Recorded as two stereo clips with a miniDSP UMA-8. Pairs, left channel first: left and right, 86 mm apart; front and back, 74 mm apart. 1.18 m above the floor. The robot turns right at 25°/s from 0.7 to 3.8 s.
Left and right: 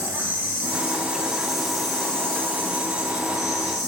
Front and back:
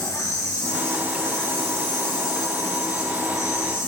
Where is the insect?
25° right, 2.5 m; by 3.9 s 55° left, 2.5 m.